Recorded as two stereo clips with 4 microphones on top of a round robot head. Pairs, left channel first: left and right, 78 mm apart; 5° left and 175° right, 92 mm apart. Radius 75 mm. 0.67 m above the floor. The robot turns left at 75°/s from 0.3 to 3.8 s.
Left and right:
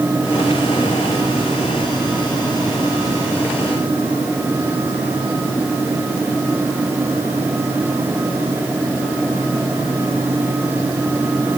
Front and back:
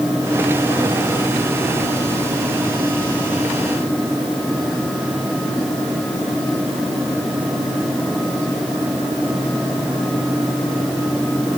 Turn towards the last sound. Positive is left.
No sound to turn to.